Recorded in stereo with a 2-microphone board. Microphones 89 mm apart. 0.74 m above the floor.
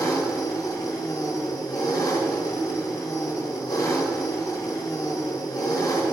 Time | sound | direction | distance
0.0 | an engine running | 40° left (ahead or behind) | 0.7 m